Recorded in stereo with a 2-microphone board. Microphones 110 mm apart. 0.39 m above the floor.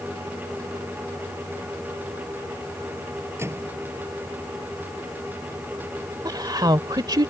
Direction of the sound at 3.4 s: 25° right (ahead or behind).